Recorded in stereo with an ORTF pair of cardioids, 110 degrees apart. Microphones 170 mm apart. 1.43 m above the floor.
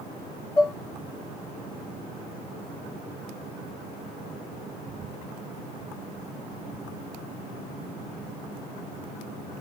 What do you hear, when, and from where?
0.6 s dishes clattering: 15° left, 1.5 m